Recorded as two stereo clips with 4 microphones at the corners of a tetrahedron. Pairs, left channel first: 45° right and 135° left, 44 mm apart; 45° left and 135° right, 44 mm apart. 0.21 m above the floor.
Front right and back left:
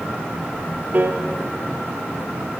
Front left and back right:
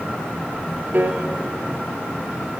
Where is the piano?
175° right, 2.5 m.